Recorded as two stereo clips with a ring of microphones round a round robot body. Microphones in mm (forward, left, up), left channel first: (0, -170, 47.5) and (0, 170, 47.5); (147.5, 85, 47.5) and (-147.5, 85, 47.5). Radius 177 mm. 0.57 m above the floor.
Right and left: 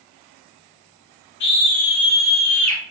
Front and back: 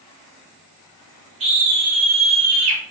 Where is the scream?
115° right, 2 m; by 2.8 s 175° right, 1.9 m.